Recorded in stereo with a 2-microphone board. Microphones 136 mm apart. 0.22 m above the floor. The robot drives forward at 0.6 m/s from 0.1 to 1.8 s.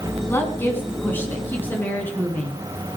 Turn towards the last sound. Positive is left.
turn(degrees=15)  # may be behind; listen again after turning